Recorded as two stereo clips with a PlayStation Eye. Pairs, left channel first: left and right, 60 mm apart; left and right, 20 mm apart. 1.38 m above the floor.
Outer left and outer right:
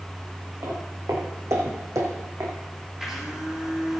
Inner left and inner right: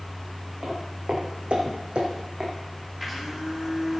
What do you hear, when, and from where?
0.6 s footsteps: 60° right (ahead or behind), 4 m
3.0 s a blender: 10° right (ahead or behind), 2.5 m